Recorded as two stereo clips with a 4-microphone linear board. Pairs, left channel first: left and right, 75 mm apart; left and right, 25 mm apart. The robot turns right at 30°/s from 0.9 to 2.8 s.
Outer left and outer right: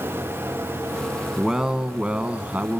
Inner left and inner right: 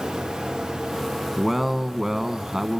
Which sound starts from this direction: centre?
A man speaking, at 1.4 s.